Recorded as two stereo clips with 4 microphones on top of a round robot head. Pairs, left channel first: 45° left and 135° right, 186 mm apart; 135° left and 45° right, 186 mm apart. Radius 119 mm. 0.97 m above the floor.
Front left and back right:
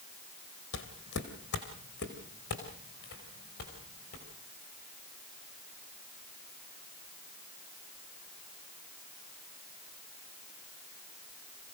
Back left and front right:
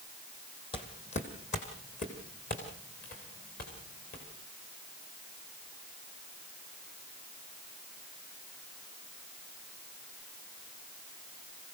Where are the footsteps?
70° left, 1.8 m; by 4.2 s 90° left, 7 m.